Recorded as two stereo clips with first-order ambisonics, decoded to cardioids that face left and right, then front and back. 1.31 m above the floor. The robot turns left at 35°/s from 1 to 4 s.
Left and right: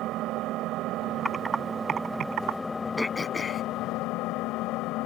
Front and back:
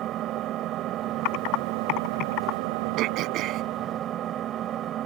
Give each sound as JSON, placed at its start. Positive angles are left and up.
{"t": 0.0, "sound": "an engine running", "azimuth_deg": -130}
{"t": 1.2, "sound": "typing on a keyboard", "azimuth_deg": 0}
{"t": 3.0, "sound": "throat clearing", "azimuth_deg": 175}